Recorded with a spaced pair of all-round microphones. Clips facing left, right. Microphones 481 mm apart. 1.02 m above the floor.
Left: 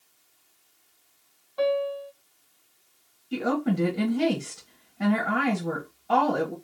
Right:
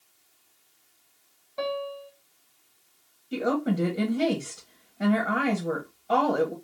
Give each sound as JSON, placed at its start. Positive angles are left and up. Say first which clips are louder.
{"t": 1.6, "sound": "a piano", "louder": "left 6 dB", "side_deg": -45, "distance_m": 1.3}
{"t": 3.3, "sound": "a woman speaking", "louder": "even", "side_deg": 15, "distance_m": 0.9}